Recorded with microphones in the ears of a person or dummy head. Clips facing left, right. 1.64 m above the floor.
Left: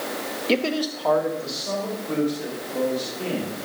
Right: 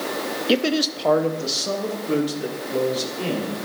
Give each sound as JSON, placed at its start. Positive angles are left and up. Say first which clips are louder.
{"t": 0.5, "sound": "a man speaking", "louder": "right 2 dB", "side_deg": -10, "distance_m": 0.5}